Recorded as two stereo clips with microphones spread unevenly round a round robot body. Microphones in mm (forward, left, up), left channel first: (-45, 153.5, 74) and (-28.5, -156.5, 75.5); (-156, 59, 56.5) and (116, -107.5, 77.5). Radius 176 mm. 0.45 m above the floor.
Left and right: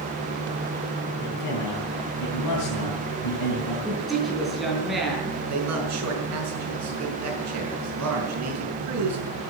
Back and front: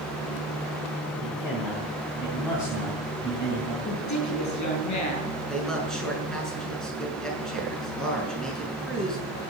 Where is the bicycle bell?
I don't hear a bicycle bell.